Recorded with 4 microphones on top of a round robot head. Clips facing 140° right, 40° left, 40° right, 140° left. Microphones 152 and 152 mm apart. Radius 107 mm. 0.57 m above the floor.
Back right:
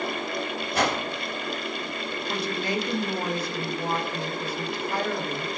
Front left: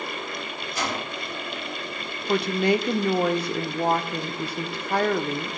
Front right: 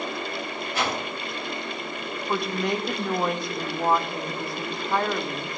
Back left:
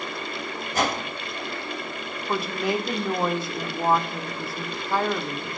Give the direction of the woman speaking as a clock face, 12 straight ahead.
10 o'clock.